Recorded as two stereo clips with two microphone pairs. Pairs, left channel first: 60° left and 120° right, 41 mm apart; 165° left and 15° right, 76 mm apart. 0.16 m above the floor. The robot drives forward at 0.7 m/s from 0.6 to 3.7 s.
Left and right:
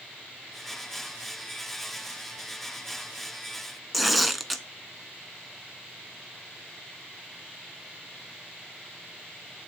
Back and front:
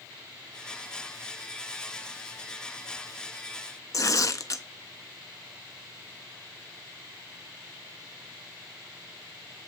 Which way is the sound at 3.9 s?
150° left.